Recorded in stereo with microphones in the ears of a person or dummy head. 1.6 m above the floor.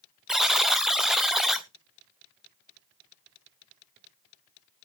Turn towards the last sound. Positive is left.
turn(degrees=0)  # may be behind; listen again after turning